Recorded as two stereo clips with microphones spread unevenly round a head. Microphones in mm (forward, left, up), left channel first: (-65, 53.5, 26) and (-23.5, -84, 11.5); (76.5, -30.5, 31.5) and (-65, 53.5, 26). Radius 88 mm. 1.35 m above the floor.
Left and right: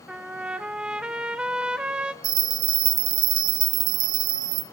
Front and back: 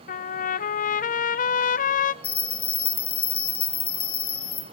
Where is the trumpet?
10° left, 0.7 m.